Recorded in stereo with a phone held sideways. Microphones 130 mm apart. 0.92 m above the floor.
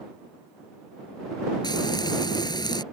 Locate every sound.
1.6 s frying: 35° left (ahead or behind)